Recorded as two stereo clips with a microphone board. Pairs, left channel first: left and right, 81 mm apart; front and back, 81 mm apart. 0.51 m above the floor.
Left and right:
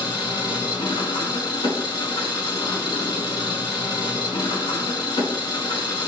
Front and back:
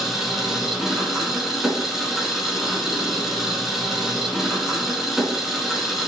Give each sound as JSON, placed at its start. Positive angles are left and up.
{"t": 0.0, "sound": "an engine running", "azimuth_deg": 95, "distance_m": 4.0}